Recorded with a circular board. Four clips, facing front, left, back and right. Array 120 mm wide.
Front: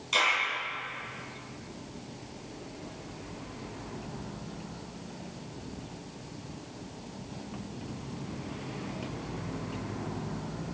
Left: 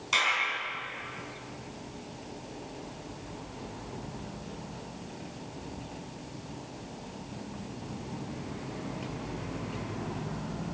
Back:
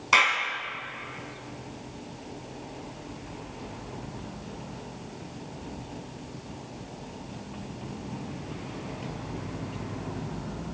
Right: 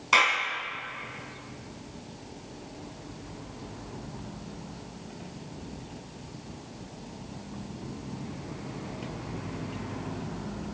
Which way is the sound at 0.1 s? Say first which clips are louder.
Right 5 dB, back 5 dB; 145° right.